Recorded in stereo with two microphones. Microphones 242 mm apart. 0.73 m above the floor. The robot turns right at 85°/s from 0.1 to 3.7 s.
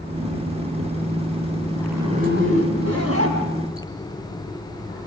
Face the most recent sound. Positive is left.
turn(degrees=-20)